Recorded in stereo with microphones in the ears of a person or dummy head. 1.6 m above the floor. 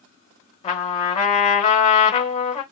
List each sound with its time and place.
0.6 s a trumpet: 35° left (ahead or behind), 1.1 m